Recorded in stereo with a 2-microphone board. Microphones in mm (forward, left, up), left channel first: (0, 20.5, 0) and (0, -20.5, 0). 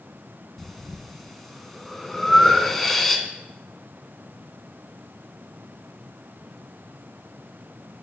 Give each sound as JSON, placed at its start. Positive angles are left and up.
{"t": 0.6, "sound": "breathing", "side_deg": 5, "distance_m": 0.6}